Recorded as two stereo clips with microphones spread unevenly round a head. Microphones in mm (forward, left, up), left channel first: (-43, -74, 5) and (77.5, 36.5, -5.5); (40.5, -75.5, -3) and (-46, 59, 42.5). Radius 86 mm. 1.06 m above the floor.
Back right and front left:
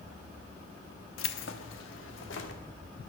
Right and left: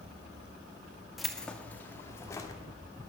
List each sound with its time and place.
1.2 s keys jangling: 150° right, 1.1 m; by 2.6 s 130° right, 2 m